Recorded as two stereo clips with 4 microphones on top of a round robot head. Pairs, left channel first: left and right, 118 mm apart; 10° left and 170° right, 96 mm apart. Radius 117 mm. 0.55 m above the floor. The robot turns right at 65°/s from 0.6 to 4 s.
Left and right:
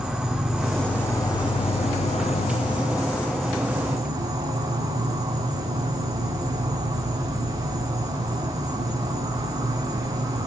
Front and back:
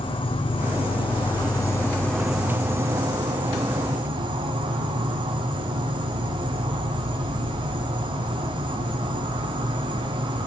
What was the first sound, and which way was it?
An insect, 5° right.